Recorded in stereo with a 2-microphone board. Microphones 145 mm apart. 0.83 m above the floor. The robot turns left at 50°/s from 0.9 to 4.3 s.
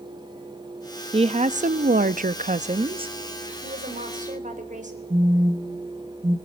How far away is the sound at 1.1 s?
About 0.8 m.